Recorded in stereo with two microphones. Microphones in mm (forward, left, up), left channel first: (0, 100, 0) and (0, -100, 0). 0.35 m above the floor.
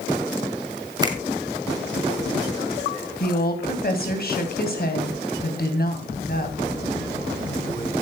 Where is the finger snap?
25° right (ahead or behind), 2 m.